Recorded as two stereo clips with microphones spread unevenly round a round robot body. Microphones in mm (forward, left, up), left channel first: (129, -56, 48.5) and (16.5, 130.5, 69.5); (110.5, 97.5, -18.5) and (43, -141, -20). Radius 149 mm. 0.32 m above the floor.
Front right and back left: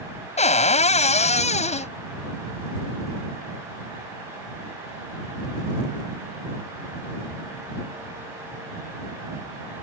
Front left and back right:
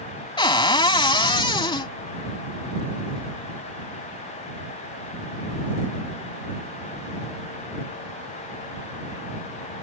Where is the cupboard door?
Straight ahead.